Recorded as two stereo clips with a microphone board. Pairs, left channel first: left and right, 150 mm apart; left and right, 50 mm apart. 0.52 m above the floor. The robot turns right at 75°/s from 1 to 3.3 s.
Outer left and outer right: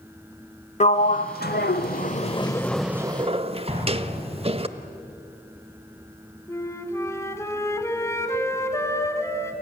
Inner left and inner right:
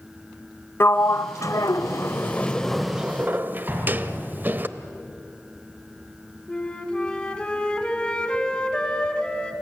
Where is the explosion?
40° right (ahead or behind), 5 m.